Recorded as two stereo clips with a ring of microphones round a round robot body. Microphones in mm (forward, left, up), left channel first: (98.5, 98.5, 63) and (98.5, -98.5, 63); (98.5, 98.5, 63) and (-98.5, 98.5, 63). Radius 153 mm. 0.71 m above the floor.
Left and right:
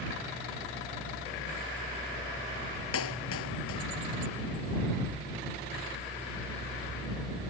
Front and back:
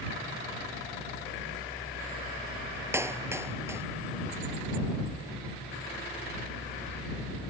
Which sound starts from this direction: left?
A clap, at 2.9 s.